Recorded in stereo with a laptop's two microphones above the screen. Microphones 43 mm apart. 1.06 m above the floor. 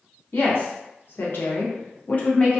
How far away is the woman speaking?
About 1.1 m.